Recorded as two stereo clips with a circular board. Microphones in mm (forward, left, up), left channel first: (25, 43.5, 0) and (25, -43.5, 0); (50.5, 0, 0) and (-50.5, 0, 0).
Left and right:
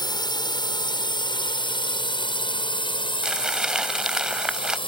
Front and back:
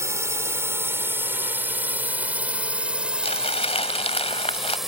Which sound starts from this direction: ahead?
Crumpling, at 3.2 s.